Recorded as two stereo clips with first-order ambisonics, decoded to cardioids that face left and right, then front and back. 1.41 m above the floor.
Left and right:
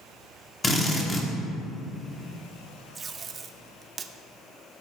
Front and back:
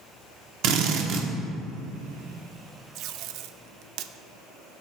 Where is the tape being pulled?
155° right, 0.5 m.